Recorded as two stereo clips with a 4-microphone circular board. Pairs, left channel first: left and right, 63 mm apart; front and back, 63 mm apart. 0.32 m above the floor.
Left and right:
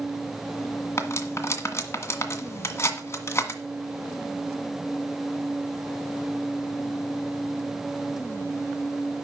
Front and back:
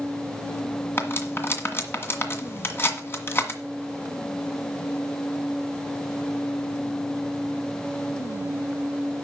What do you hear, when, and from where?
1.0 s cutlery clinking: 50° left, 1.8 m